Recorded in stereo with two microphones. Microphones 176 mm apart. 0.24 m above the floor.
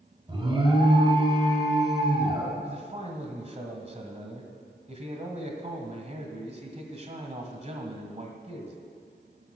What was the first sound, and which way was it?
An alarm, 30° right (ahead or behind).